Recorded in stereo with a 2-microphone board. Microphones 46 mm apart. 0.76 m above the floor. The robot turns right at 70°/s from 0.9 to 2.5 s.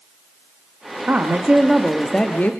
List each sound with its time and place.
1.1 s a woman speaking: 55° right, 1.4 m; by 2.5 s 45° left, 1.4 m